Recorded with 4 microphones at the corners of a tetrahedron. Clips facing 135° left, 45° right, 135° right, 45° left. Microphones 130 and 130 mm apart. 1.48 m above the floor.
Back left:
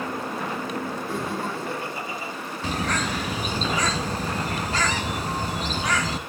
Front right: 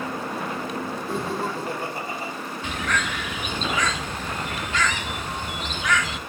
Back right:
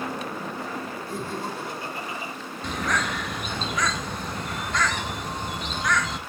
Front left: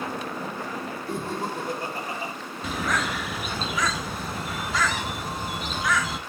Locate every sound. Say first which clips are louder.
1.1 s laughter: front right 3 dB, front left 3 dB; 20° left, 3.5 m; by 2.3 s 10° right, 4 m
2.6 s a bird: back left 2 dB, even; 130° left, 0.8 m